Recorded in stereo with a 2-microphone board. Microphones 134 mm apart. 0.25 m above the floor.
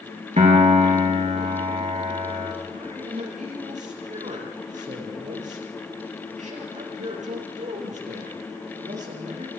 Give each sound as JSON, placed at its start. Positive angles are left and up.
{"t": 0.4, "sound": "a piano", "side_deg": -55, "distance_m": 4.5}
{"t": 2.7, "sound": "a man speaking", "side_deg": -65, "distance_m": 7.0}